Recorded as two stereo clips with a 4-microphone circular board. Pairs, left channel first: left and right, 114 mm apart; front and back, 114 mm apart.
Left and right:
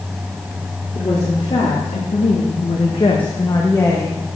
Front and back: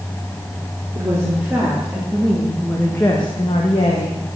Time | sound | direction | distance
0.9 | a woman speaking | 115° left | 3 m